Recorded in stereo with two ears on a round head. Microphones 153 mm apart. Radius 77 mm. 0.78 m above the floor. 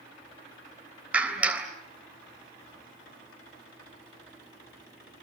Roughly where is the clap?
Centre.